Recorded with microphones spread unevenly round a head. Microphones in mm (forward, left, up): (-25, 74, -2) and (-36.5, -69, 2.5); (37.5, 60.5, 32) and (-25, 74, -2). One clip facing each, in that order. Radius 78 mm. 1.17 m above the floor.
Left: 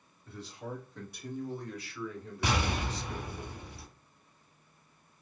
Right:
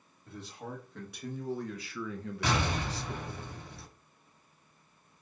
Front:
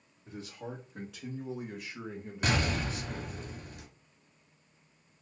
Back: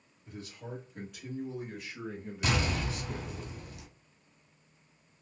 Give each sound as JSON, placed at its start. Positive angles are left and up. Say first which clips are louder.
{"t": 0.2, "sound": "a man speaking", "louder": "left 1 dB, front 2 dB", "azimuth_deg": -40, "distance_m": 1.7}
{"t": 2.4, "sound": "an explosion", "louder": "even, front 1 dB", "azimuth_deg": 5, "distance_m": 1.9}